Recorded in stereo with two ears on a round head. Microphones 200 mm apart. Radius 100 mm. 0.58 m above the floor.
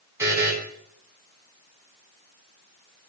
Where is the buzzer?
15° right (ahead or behind), 4 m.